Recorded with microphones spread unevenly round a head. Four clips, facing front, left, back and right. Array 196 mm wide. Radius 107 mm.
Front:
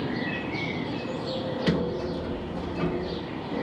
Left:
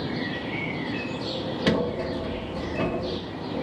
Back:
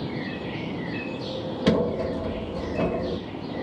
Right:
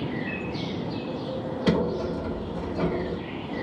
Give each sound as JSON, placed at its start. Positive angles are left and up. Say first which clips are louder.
{"t": 1.7, "sound": "a sliding door", "louder": "right 1 dB, back 6 dB", "azimuth_deg": 170, "distance_m": 1.1}